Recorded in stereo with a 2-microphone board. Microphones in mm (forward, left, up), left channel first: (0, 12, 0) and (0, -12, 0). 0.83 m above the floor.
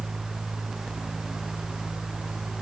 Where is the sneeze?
No sneeze in this recording.